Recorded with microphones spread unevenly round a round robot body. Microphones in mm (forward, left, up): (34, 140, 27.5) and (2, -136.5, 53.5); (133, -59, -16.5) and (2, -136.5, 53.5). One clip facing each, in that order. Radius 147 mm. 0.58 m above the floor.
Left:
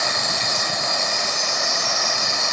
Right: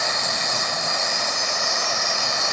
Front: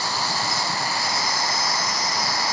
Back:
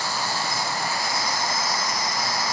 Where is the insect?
55° left, 8 m.